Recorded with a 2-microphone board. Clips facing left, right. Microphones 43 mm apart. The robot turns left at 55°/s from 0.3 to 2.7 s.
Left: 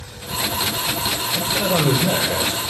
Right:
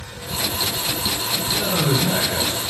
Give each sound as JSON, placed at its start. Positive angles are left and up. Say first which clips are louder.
{"t": 1.4, "sound": "a man speaking", "louder": "left 4 dB", "azimuth_deg": 125, "distance_m": 3.0}